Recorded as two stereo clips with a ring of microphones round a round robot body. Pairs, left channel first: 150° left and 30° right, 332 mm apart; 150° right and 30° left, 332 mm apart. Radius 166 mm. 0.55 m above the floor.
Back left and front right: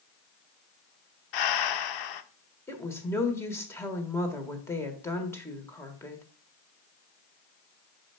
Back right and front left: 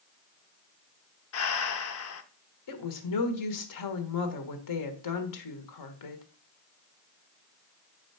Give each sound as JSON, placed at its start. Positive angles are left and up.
{"t": 1.3, "sound": "breathing", "azimuth_deg": 165, "distance_m": 0.7}
{"t": 2.7, "sound": "a woman speaking", "azimuth_deg": -125, "distance_m": 1.5}